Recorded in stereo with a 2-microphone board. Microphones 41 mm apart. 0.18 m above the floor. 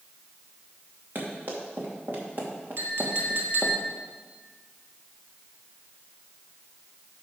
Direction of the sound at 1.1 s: 50° right (ahead or behind).